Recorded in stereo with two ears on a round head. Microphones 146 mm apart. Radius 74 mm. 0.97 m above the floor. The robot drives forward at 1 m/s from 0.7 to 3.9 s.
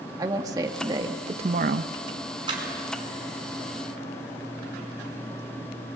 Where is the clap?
30° right (ahead or behind), 7.5 m.